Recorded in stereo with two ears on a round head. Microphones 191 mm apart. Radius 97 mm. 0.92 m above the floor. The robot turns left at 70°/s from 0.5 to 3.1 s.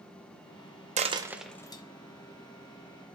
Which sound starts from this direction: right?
A dropped coin, at 1.0 s.